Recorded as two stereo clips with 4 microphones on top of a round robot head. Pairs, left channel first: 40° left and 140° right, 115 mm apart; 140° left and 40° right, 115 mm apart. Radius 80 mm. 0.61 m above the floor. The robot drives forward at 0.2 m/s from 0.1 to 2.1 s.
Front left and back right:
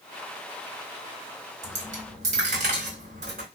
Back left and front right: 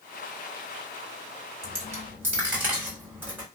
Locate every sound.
1.6 s a dropped coin: 110° right, 1.3 m; by 3.5 s 115° right, 1.3 m